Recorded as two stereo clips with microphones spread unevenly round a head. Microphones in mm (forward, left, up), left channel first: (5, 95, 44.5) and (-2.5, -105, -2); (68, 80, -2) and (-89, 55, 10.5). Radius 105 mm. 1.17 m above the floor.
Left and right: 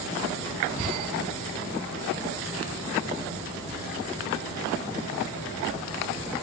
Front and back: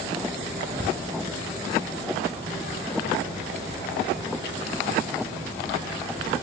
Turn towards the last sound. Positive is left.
No sound to turn to.